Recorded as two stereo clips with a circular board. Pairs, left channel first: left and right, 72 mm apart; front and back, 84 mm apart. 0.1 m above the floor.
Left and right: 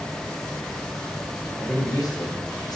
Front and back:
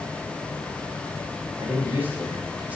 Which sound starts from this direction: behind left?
A man speaking, at 1.6 s.